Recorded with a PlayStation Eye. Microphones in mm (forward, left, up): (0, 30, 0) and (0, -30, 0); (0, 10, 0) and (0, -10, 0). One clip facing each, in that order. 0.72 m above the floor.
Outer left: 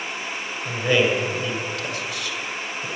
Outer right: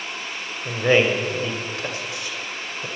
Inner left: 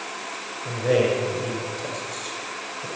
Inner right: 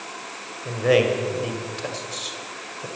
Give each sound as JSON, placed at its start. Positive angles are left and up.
{"t": 0.7, "sound": "a man speaking", "side_deg": -30, "distance_m": 1.7}